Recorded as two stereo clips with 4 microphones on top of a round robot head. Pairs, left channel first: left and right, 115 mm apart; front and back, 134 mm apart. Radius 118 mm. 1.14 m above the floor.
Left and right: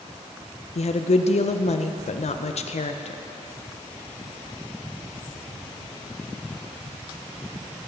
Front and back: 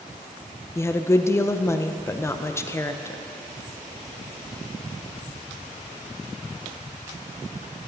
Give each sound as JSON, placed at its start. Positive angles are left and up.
{"t": 0.8, "sound": "a woman speaking", "azimuth_deg": 70, "distance_m": 0.7}